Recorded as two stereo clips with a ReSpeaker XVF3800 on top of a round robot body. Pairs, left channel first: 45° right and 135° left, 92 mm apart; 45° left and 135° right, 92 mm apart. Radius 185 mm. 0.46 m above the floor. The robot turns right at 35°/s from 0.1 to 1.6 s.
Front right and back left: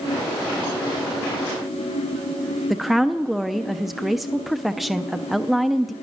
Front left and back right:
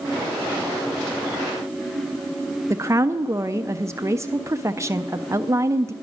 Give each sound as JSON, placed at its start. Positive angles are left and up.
{"t": 2.7, "sound": "a woman speaking", "azimuth_deg": -140, "distance_m": 0.8}